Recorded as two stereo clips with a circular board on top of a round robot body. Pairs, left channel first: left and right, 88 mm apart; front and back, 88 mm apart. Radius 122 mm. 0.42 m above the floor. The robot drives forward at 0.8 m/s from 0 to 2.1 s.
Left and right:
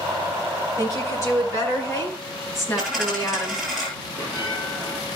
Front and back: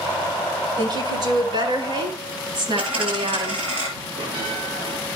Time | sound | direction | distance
0.8 | a woman speaking | 145° left | 7.5 m
2.8 | a dropped coin | straight behind | 8.5 m
4.2 | a bell | 160° left | 5.5 m